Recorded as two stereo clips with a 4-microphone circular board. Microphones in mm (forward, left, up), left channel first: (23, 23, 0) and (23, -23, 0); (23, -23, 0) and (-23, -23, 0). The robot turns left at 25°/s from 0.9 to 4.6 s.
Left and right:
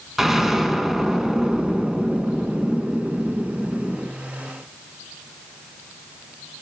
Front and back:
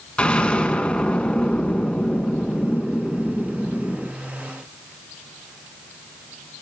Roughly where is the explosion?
Ahead.